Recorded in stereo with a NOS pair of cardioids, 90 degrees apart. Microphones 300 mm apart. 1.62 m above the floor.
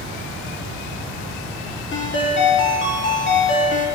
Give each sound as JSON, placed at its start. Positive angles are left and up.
{"t": 1.9, "sound": "a ringtone", "azimuth_deg": 40, "distance_m": 2.0}